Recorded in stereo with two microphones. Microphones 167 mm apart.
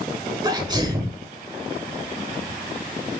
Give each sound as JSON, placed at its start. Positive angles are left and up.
{"t": 0.4, "sound": "a sneeze", "side_deg": -25, "distance_m": 0.9}